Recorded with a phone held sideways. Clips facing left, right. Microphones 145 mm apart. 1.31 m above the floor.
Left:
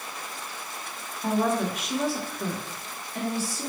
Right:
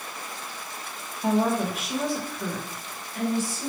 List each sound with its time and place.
1.2 s a woman speaking: 15° right (ahead or behind), 1.2 m; by 3.7 s 40° left (ahead or behind), 1.4 m